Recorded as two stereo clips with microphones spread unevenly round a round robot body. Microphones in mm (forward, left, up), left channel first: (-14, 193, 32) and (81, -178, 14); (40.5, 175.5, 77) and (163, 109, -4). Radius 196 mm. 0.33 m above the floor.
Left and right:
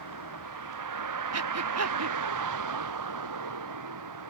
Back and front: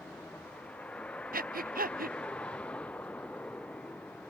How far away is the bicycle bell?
I don't hear a bicycle bell.